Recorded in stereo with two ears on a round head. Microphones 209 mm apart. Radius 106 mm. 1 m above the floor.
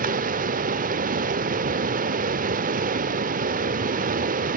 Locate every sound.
0.0 s running water: 35° right (ahead or behind), 0.8 m